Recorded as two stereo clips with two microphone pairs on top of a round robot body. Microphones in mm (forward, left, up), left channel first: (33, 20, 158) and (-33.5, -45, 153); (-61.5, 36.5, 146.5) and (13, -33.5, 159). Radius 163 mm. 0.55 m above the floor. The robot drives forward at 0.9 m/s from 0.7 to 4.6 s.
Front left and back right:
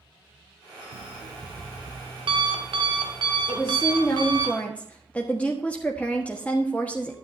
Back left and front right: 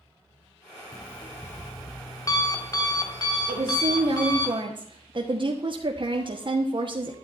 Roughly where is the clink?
I don't hear a clink.